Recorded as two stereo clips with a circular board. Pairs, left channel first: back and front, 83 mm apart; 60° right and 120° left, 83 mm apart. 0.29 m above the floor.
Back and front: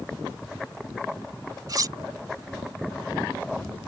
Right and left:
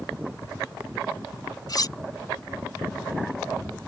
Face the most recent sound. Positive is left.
turn(degrees=-35)